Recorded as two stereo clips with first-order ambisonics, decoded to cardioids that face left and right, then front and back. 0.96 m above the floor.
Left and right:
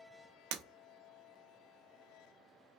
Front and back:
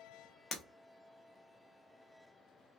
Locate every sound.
0.5 s breaking glass: 70° right, 0.5 m